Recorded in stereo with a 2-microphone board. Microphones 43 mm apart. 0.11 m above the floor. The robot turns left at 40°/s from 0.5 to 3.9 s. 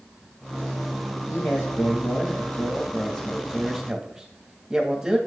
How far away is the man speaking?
About 2.5 m.